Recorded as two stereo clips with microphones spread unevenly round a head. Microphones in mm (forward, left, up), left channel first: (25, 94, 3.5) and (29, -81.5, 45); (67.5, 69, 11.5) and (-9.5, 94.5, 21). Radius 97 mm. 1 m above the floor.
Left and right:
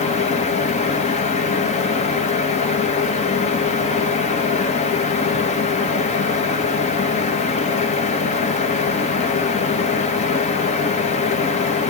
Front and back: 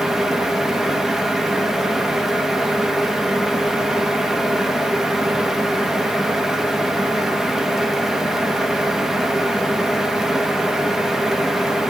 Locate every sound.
0.0 s a fan: 75° left, 2.0 m